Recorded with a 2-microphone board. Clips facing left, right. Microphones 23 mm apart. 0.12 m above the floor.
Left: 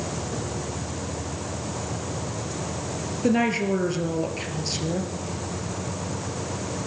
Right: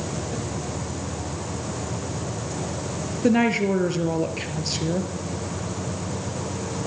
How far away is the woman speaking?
About 3 m.